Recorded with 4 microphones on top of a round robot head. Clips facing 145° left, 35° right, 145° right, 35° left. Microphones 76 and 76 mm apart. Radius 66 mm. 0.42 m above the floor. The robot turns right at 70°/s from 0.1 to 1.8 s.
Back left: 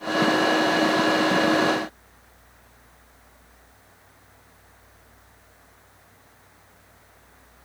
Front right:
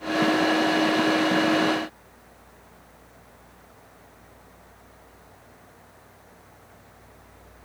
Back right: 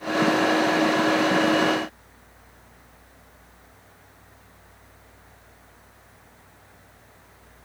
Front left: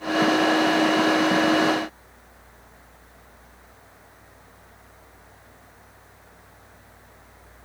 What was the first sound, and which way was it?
Only background noise.